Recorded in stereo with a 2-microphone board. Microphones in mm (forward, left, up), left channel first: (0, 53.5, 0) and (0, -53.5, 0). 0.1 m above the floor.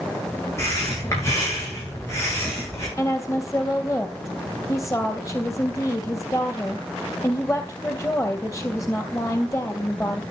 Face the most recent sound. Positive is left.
turn(degrees=25)  # may be behind; listen again after turning